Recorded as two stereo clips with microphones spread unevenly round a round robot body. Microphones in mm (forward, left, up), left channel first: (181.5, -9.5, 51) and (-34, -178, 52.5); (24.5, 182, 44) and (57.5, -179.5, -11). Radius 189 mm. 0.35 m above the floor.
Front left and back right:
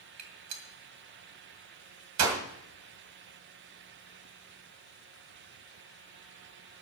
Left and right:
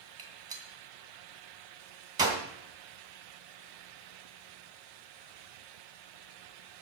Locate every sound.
0.2 s a gunshot: 160° right, 2 m